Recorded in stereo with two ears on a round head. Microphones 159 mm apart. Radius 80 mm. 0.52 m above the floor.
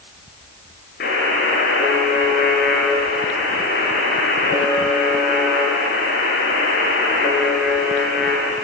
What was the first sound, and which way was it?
A buzzer, 55° left (ahead or behind).